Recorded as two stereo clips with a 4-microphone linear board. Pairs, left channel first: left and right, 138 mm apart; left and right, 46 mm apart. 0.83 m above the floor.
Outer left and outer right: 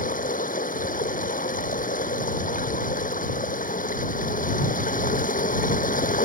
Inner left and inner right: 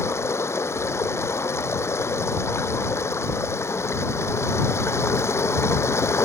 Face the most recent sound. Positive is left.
turn(degrees=75)  # may be behind; listen again after turning